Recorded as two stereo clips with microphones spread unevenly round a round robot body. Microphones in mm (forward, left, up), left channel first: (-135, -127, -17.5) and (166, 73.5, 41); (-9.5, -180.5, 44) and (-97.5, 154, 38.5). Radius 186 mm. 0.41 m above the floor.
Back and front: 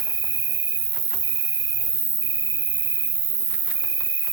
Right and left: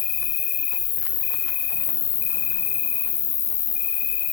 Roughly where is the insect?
Ahead right.